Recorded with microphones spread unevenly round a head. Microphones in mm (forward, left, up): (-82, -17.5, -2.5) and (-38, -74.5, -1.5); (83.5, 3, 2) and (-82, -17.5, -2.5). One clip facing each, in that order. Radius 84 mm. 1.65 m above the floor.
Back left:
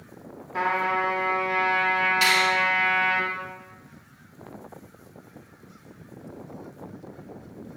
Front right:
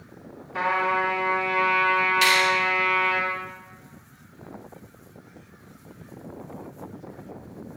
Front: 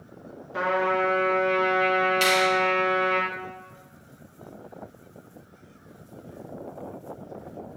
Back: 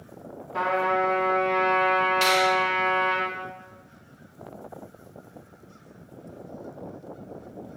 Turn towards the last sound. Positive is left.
turn(degrees=75)